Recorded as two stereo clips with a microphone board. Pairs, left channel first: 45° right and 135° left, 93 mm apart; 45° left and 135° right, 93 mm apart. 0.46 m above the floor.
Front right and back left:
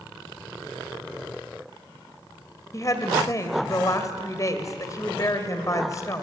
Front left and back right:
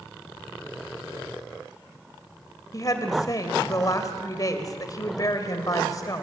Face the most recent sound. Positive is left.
turn(degrees=0)